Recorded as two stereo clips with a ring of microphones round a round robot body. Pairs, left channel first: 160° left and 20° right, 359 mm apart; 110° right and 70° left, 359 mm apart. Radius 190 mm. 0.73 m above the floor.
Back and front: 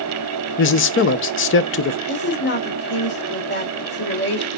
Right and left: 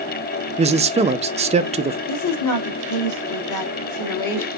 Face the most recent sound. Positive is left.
turn(degrees=-145)